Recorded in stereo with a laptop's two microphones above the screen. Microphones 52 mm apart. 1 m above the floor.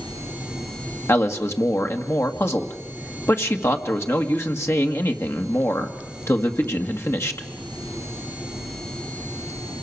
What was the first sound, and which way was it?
A man speaking, 60° left (ahead or behind).